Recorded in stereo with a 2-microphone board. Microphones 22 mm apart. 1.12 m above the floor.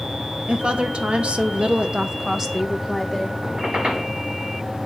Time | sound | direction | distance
0.5 | a woman speaking | 50° right (ahead or behind) | 1.4 m
3.4 | a squeak | 60° right (ahead or behind) | 6.5 m